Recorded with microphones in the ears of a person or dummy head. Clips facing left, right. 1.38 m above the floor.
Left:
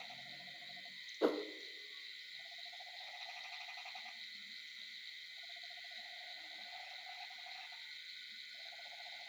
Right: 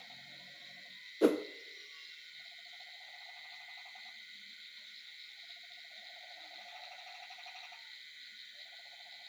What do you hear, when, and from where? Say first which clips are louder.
1.2 s a whoosh: right 7 dB; 30° right (ahead or behind), 0.6 m